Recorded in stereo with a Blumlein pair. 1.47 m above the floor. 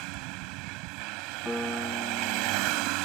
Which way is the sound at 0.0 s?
40° right.